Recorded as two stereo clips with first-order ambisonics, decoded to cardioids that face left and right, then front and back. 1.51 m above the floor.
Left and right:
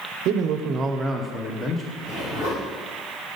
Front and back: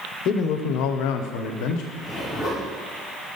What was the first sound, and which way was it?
A man speaking, 50° right.